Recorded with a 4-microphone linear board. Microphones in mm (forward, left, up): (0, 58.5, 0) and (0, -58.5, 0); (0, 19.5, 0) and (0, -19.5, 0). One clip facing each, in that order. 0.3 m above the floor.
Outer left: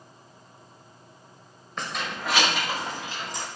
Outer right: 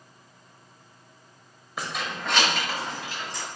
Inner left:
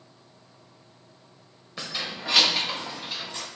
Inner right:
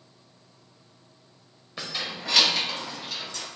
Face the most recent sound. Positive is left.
turn(degrees=25)  # may be behind; listen again after turning